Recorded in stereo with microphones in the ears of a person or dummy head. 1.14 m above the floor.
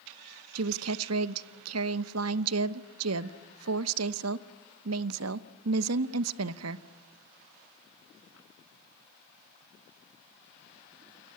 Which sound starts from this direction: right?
A woman speaking, at 0.6 s.